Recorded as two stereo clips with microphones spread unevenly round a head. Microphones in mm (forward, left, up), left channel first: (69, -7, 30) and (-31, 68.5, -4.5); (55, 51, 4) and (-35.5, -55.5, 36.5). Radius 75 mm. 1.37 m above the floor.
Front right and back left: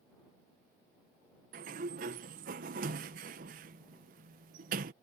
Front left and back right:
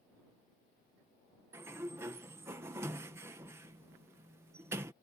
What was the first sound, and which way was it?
A sliding door, 155° left.